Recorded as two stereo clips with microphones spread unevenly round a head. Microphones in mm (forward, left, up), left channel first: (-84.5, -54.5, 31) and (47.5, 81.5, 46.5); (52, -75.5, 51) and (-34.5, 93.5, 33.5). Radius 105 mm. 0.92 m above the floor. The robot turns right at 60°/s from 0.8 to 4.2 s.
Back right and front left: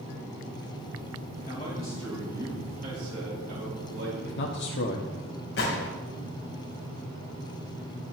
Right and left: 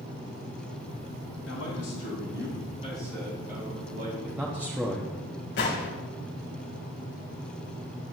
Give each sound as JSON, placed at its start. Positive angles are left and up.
{"t": 1.5, "sound": "a man speaking", "azimuth_deg": -85, "distance_m": 6.0}
{"t": 4.2, "sound": "a man speaking", "azimuth_deg": -160, "distance_m": 1.0}
{"t": 5.6, "sound": "a gunshot", "azimuth_deg": -95, "distance_m": 2.5}